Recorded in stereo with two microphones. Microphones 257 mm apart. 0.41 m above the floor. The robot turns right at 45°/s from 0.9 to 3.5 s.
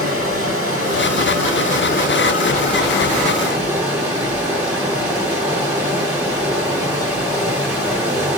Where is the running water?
75° left, 2 m; by 8.4 s 170° right, 2 m.